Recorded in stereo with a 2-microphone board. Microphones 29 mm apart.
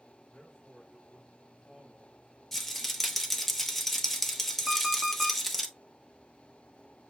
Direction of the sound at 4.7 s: 10° right (ahead or behind).